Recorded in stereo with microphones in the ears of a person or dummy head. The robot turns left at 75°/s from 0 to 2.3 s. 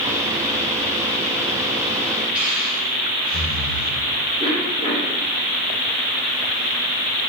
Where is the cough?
25° right (ahead or behind), 3 m.